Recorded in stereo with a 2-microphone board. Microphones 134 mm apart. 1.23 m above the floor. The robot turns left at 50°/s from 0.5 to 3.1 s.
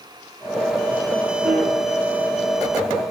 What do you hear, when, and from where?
1.4 s a piano: 90° right, 9.5 m; by 1.7 s 75° right (ahead or behind), 9.5 m